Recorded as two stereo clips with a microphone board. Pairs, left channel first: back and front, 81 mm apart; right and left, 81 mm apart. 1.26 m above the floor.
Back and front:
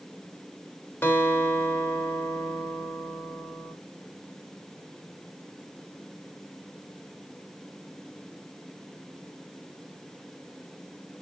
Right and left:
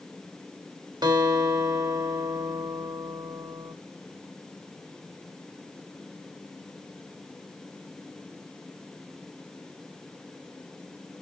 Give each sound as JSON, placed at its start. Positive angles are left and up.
{"t": 1.0, "sound": "a guitar", "azimuth_deg": 115, "distance_m": 3.0}